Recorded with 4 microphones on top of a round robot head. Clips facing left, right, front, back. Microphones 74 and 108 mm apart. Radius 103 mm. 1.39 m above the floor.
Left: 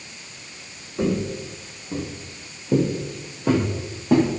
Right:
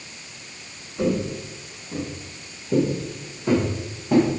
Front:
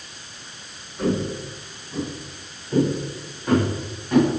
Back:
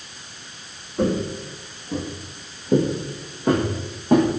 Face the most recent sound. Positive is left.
turn(degrees=125)